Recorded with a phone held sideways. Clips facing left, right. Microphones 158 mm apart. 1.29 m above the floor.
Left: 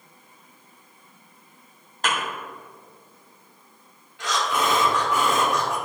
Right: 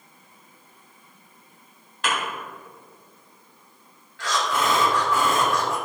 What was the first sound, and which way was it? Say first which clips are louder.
A thud: even; 40° left (ahead or behind).